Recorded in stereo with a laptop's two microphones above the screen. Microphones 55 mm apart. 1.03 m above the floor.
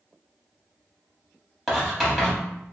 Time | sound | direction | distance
1.7 | writing | 10° right (ahead or behind) | 1.9 m